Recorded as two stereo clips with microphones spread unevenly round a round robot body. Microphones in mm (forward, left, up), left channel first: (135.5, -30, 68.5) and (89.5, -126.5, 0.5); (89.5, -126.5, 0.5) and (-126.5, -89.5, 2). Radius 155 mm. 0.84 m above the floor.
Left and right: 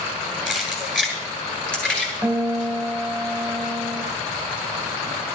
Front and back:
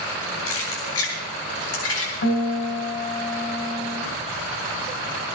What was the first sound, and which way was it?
Keys jangling, 25° right.